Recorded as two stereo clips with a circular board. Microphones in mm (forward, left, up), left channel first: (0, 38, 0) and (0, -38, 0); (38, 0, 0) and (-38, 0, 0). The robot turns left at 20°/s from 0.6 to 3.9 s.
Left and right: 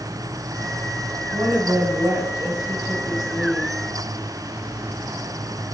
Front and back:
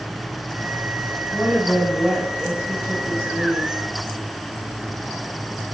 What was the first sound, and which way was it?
A woman speaking, 90° right.